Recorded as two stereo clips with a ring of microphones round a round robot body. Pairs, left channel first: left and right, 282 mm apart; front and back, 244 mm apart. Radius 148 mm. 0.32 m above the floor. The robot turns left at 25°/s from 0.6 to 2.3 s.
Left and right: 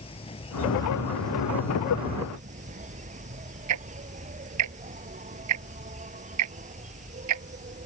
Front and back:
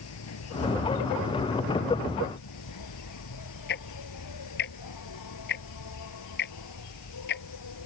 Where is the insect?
20° left; by 7.9 s 25° right.